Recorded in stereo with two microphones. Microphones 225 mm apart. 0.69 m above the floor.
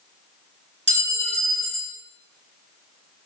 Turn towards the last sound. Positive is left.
turn(degrees=-55)  # may be behind; listen again after turning